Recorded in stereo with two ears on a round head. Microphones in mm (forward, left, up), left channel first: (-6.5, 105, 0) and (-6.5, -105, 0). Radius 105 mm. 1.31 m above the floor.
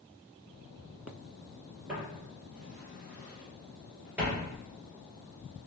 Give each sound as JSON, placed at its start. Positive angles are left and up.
{"t": 1.9, "sound": "footsteps", "side_deg": -5, "distance_m": 1.4}